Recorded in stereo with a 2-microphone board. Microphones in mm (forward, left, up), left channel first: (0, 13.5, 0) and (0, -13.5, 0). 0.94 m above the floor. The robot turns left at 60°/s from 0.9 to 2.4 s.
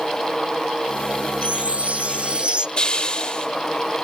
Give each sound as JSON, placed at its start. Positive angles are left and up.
{"t": 1.4, "sound": "a chime", "azimuth_deg": -70, "distance_m": 0.6}
{"t": 2.8, "sound": "a hiss", "side_deg": 40, "distance_m": 2.5}